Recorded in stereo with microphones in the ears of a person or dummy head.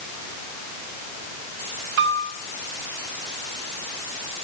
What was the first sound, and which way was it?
A piano, 75° right (ahead or behind).